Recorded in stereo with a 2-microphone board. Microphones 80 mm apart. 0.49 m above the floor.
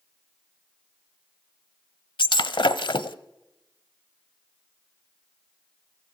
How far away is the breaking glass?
About 0.9 m.